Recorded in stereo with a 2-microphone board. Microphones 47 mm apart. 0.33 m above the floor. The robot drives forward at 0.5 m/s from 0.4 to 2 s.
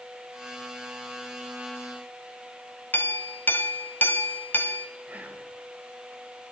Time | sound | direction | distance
2.9 | a clink | 45° left (ahead or behind) | 0.9 m
5.1 | whispering | 30° right (ahead or behind) | 1.6 m